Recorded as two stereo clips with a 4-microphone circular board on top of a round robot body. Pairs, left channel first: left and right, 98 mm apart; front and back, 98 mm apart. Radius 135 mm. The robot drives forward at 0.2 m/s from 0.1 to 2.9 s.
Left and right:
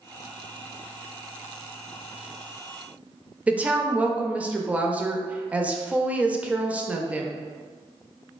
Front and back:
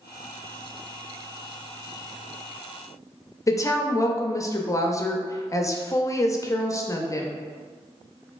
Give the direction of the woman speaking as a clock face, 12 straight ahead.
1 o'clock.